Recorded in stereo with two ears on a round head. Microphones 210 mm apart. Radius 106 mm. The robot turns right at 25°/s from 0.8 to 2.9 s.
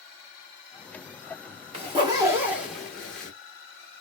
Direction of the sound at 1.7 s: 25° right (ahead or behind).